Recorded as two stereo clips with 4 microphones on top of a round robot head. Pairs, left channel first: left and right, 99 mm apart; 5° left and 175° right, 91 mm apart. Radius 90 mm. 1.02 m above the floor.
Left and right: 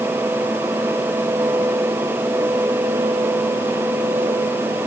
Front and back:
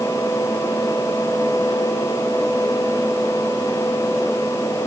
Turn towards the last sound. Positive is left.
No sound to turn to.